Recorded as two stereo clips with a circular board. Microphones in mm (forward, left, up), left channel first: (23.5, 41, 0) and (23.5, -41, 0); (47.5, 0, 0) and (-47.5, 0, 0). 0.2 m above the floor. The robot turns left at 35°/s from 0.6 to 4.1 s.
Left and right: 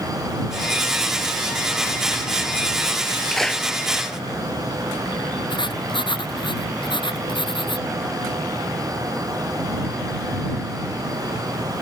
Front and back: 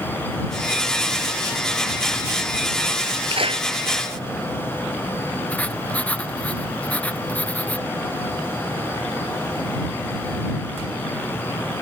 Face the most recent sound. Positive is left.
turn(degrees=75)